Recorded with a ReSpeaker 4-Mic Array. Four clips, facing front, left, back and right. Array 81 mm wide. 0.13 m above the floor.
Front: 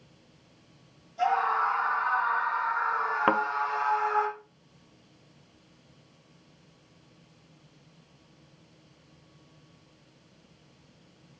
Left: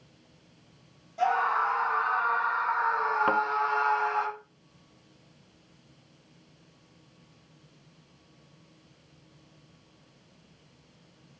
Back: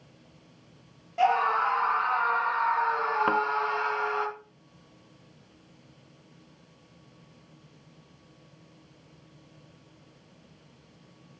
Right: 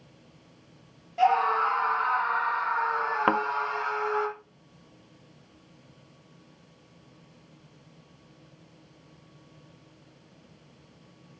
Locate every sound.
1.2 s a scream: 155° right, 4 m; by 4.3 s straight behind, 4 m
3.3 s a thud: 55° right, 0.7 m